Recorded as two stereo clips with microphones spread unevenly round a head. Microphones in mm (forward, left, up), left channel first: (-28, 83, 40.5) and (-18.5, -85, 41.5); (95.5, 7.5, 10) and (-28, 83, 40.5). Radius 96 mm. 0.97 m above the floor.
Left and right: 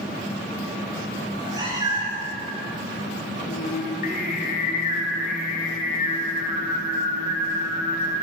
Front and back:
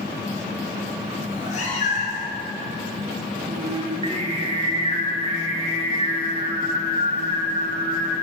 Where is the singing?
100° left, 1.0 m.